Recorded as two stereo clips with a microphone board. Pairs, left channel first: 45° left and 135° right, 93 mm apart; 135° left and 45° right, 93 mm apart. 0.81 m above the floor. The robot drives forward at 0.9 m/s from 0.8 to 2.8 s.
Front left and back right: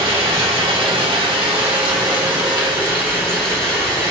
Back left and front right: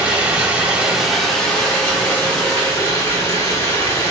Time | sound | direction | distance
0.0 | running water | 120° right | 1.0 m